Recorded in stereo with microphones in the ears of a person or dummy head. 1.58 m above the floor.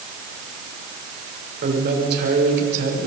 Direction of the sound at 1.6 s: 55° right (ahead or behind).